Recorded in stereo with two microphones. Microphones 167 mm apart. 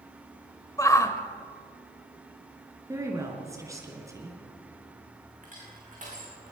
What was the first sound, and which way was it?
A shout, 20° left (ahead or behind).